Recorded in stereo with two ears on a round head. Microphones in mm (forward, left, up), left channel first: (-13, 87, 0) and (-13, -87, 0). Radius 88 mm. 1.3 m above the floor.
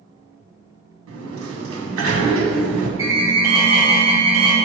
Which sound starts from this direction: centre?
An alarm, at 3.0 s.